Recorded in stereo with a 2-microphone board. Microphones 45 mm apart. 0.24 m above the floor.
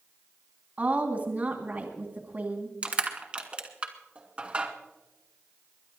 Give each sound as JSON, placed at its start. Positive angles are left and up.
{"t": 0.8, "sound": "a woman speaking", "side_deg": -40, "distance_m": 2.0}
{"t": 2.8, "sound": "crushing", "side_deg": -30, "distance_m": 2.0}